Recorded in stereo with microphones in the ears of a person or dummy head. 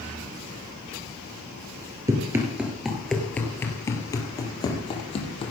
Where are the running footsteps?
15° right (ahead or behind), 1.8 m; by 5.5 s 35° left (ahead or behind), 3 m.